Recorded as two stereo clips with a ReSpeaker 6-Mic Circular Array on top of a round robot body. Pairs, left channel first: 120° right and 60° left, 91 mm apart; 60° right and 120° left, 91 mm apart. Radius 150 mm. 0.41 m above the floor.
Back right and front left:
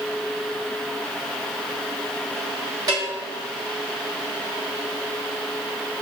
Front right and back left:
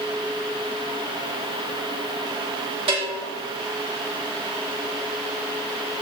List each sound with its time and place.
2.9 s a bell: 110° left, 3 m